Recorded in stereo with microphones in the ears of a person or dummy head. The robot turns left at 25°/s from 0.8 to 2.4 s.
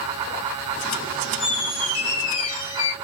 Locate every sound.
1.4 s a squeak: 45° left (ahead or behind), 1.6 m; by 2.9 s 30° left (ahead or behind), 1.6 m